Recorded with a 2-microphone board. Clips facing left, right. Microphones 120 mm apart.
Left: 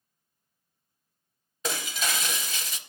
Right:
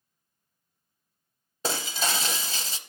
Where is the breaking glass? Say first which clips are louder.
Right 2 dB; 35° right (ahead or behind), 0.5 m.